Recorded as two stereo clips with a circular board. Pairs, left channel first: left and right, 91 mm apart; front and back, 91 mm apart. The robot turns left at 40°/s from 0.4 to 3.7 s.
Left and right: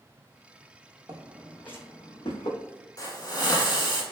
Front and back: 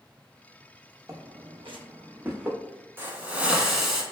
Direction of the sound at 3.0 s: 125° left.